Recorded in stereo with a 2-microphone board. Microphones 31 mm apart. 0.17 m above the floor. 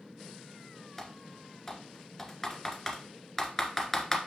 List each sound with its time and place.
1.0 s typing on a keyboard: 15° left (ahead or behind), 1.5 m